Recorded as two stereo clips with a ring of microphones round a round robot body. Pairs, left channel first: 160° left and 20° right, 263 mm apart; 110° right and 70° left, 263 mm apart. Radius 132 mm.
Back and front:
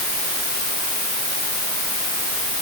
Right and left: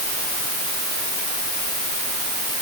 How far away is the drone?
No drone in this recording.